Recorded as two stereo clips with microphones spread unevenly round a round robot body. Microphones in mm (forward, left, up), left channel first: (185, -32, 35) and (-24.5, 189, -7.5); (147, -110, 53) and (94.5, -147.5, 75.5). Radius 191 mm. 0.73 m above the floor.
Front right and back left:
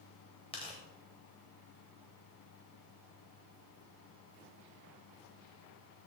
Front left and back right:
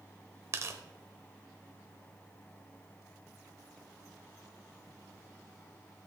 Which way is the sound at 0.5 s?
120° right.